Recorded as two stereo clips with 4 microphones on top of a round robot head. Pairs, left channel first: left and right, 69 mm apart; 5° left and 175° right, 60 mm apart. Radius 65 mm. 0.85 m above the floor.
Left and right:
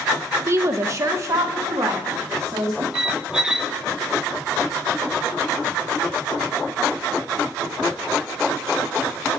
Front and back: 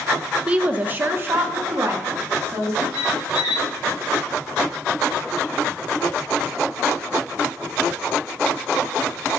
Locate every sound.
0.5 s a woman speaking: 110° right, 0.6 m; by 2.8 s 130° right, 2.0 m
2.9 s a squeak: 15° right, 0.7 m